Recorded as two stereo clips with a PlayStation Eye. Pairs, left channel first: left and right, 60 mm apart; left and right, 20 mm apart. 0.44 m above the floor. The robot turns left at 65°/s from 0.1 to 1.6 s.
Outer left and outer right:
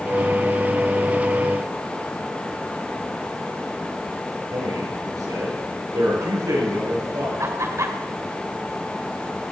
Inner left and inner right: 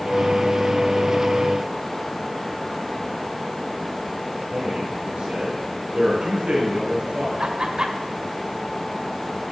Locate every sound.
4.5 s a man speaking: 75° right (ahead or behind), 6.5 m
7.4 s laughter: 55° right (ahead or behind), 1.9 m